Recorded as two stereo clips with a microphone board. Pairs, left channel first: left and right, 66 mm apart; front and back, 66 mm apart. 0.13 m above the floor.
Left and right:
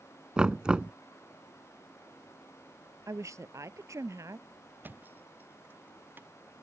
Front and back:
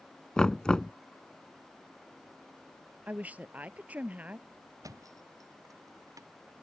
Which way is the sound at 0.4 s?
45° right.